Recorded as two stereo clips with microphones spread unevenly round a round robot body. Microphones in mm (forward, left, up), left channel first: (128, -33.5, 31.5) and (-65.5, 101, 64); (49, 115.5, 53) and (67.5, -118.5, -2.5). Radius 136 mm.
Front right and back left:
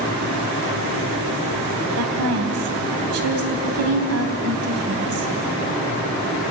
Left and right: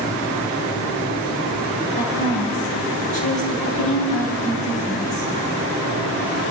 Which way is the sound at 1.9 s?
160° left.